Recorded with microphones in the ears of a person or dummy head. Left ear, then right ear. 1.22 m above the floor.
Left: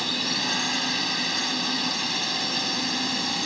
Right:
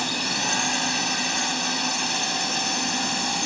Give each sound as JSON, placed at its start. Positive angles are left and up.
{"t": 0.0, "sound": "a drone", "side_deg": -30}